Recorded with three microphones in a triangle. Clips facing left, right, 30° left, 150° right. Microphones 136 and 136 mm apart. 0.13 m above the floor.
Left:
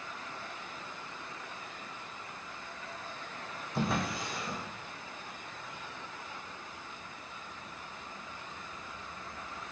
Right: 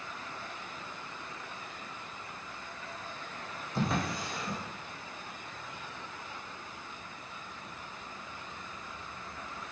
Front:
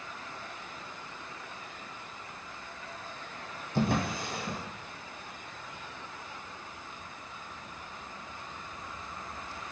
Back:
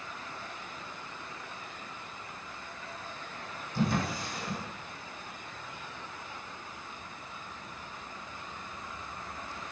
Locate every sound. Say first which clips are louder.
3.8 s a drawer: even, front 1 dB; straight ahead, 1.6 m